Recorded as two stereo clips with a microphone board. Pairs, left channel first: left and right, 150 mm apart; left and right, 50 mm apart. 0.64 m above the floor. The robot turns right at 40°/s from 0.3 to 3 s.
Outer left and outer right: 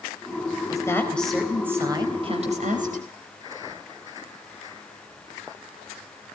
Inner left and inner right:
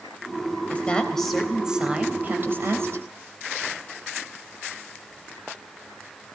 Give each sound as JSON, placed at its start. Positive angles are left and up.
{"t": 0.7, "sound": "a woman speaking", "azimuth_deg": 155, "distance_m": 3.5}